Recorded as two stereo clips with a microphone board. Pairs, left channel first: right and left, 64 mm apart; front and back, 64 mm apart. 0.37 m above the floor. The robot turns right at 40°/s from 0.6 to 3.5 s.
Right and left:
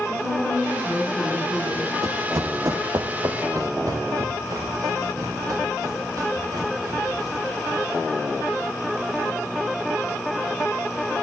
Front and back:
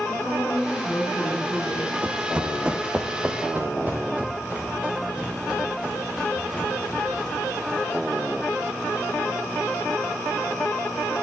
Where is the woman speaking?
15° left, 4.5 m; by 1.9 s 65° left, 4.5 m.